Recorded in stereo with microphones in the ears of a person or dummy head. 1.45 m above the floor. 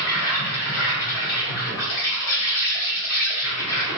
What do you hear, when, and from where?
0.0 s an insect: 75° left (ahead or behind), 1.1 m